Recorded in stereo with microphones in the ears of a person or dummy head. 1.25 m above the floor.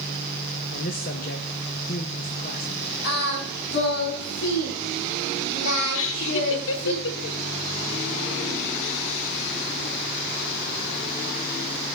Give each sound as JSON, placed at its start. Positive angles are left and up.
{"t": 0.7, "sound": "a man speaking", "side_deg": 45, "distance_m": 1.2}
{"t": 3.0, "sound": "singing", "side_deg": 80, "distance_m": 4.0}
{"t": 5.9, "sound": "laughter", "side_deg": 75, "distance_m": 1.2}